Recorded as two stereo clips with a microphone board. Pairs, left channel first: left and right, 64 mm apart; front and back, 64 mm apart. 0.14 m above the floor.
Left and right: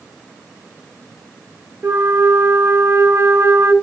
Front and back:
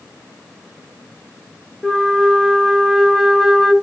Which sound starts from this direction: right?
A flute, at 1.8 s.